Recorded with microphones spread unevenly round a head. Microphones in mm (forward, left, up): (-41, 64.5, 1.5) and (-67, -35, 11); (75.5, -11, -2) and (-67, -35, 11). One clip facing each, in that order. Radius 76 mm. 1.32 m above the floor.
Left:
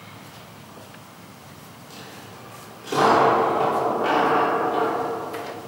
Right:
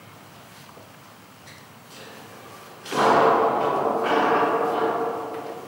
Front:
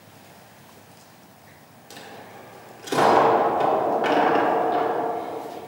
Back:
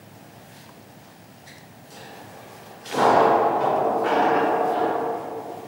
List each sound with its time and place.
1.9 s a dropped coin: 5° left, 1.4 m